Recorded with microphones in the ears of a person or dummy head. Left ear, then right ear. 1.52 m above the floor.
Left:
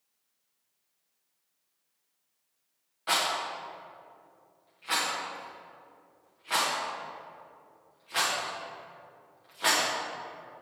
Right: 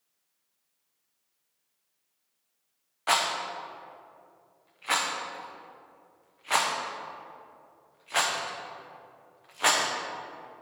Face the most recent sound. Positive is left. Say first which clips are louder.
# right 2 dB
turn(degrees=-25)  # may be behind; listen again after turning